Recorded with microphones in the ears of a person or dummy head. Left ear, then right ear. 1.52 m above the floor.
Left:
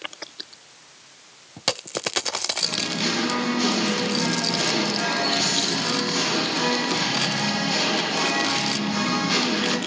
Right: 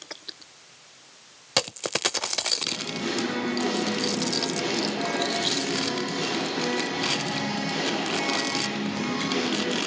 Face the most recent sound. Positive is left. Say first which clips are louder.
# left 5 dB
turn(degrees=45)  # may be behind; listen again after turning